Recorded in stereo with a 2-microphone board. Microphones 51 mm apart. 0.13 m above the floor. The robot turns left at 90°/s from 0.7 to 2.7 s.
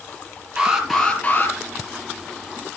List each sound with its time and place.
0.6 s an alarm: 160° right, 4.5 m; by 1.6 s 120° left, 4.5 m